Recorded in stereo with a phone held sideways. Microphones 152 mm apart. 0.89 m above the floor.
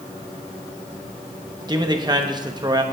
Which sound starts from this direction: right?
A man speaking, at 1.7 s.